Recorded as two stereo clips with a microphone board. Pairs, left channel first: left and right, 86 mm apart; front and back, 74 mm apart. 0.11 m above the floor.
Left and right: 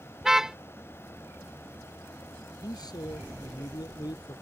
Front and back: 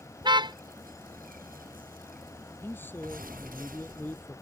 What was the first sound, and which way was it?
A car horn, 175° right.